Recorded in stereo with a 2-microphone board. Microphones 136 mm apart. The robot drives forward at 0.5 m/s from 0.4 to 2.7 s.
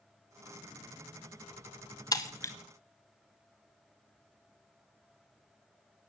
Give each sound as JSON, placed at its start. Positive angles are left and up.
{"t": 2.1, "sound": "breaking glass", "side_deg": 30, "distance_m": 0.6}